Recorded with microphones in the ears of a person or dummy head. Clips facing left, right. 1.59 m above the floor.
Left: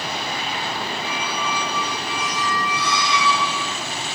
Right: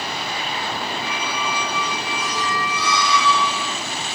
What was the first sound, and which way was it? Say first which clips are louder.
A squeak: even; 45° right (ahead or behind).